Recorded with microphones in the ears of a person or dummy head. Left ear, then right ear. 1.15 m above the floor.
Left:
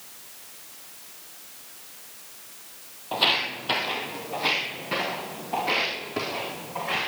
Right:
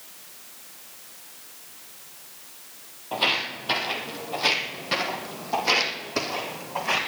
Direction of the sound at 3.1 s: 5° left (ahead or behind).